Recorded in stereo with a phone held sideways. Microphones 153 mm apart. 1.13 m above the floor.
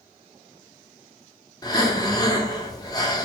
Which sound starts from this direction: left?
Breathing, at 1.6 s.